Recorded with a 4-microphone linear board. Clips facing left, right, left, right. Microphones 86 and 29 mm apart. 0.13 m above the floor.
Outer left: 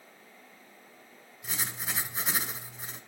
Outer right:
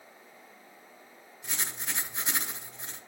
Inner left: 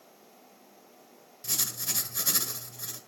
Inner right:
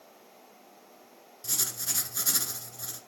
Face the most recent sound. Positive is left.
turn(degrees=0)  # may be behind; listen again after turning